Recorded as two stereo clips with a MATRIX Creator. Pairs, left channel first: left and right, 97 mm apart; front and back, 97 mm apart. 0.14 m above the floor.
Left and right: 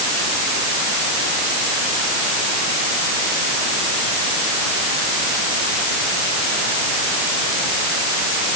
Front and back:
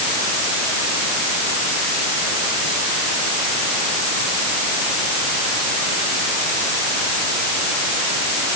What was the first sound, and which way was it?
Only background noise.